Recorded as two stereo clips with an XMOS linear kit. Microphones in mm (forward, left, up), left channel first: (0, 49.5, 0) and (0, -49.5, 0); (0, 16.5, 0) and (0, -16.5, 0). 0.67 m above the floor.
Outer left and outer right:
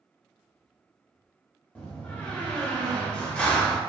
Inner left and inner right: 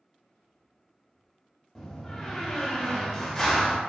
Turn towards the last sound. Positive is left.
turn(degrees=10)  # may be behind; listen again after turning